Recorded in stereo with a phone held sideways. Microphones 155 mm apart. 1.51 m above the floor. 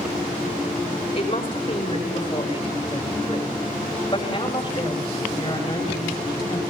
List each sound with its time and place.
1.1 s a woman speaking: 40° left (ahead or behind), 7 m; by 6.7 s 25° left (ahead or behind), 9.5 m